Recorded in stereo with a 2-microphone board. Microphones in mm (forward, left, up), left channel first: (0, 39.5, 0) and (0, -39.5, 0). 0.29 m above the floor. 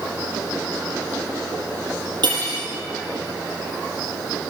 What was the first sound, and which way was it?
Cutlery clinking, 75° right (ahead or behind).